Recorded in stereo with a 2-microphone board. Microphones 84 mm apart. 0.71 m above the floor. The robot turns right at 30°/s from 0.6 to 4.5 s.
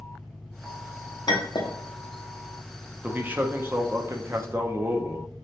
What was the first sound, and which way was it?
An engine running, 165° left.